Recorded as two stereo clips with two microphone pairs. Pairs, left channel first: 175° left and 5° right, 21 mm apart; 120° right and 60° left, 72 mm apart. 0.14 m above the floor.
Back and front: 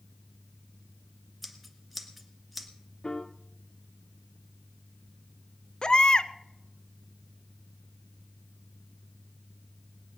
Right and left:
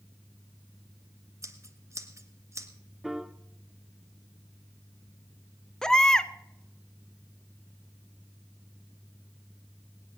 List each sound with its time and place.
1.4 s scissors: 90° left, 1.4 m
3.0 s a piano: 145° left, 0.6 m
5.8 s a baby crying: 160° left, 0.5 m